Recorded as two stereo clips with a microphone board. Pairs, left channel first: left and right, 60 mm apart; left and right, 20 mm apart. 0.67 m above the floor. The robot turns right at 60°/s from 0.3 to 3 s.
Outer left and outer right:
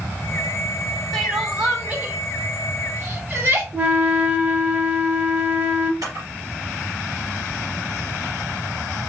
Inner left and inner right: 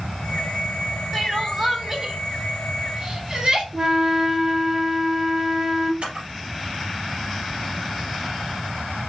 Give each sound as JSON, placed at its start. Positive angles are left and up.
{"t": 1.1, "sound": "crying", "side_deg": 5, "distance_m": 1.1}
{"t": 3.7, "sound": "a flute", "side_deg": -30, "distance_m": 0.7}
{"t": 6.0, "sound": "a camera shutter", "side_deg": -85, "distance_m": 3.0}